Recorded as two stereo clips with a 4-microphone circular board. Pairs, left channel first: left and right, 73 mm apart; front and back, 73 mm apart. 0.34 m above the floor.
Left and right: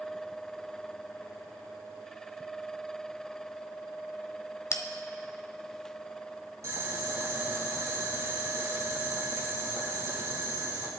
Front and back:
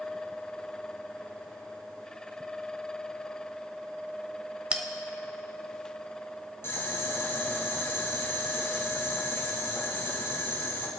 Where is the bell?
115° left, 1.0 m.